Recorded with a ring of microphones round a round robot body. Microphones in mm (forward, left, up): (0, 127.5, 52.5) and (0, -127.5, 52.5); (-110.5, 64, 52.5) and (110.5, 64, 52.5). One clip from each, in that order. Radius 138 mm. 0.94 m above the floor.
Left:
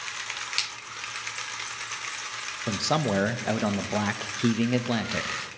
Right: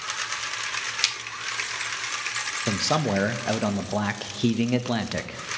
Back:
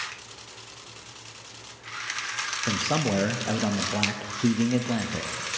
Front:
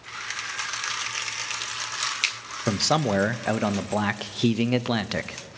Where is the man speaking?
Straight ahead, 0.7 m.